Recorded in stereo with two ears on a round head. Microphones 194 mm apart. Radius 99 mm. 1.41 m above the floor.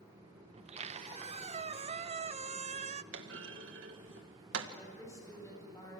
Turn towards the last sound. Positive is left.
turn(degrees=15)  # may be behind; listen again after turning